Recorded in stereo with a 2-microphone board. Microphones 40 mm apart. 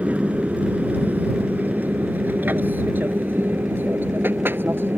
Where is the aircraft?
40° right (ahead or behind); by 5.0 s 65° right (ahead or behind).